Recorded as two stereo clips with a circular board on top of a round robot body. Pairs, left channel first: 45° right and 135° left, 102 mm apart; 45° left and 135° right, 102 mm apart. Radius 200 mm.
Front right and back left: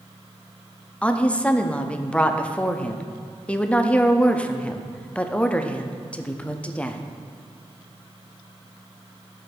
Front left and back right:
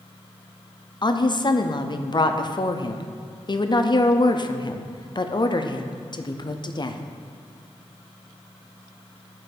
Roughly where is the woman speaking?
Ahead left.